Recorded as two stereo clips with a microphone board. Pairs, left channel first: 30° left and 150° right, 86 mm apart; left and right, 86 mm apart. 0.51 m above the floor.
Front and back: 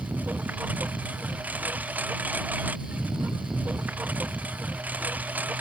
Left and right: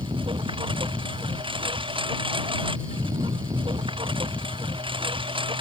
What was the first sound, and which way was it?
A lawn mower, 75° right.